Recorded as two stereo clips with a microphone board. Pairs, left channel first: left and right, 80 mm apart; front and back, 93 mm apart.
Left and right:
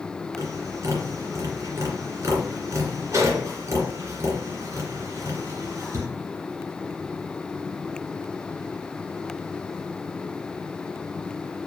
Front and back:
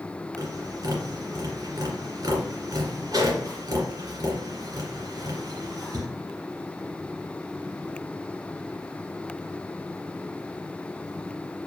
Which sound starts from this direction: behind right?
Tapping, at 0.4 s.